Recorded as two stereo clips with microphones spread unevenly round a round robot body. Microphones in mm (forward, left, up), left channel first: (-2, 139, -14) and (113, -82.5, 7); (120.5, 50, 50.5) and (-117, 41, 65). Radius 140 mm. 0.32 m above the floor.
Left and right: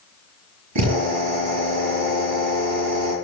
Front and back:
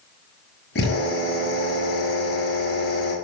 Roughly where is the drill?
Ahead right.